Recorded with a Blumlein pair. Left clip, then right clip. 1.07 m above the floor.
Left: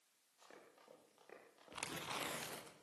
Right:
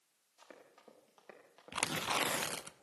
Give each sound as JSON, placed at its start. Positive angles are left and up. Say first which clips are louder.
{"t": 0.4, "sound": "running footsteps", "louder": "right 4 dB", "azimuth_deg": -20, "distance_m": 9.0}
{"t": 1.7, "sound": "tearing paper", "louder": "right 11 dB", "azimuth_deg": -60, "distance_m": 1.0}